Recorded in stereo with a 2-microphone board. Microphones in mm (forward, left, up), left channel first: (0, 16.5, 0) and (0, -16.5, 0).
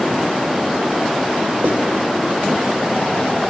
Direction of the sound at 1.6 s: 65° right (ahead or behind).